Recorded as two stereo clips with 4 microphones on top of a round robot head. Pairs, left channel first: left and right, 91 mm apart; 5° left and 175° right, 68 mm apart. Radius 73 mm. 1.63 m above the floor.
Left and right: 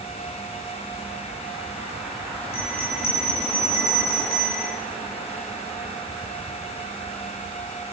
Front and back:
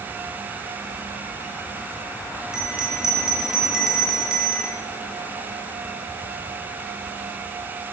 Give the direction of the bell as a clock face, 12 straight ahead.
9 o'clock.